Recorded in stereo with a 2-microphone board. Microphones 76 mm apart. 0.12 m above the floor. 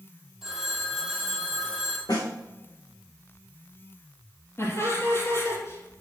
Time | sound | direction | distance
0.4 | a phone ringing | 10° right (ahead or behind) | 2.5 m
2.1 | a snare drum | 60° left (ahead or behind) | 2.5 m
4.6 | laughter | 40° left (ahead or behind) | 3.5 m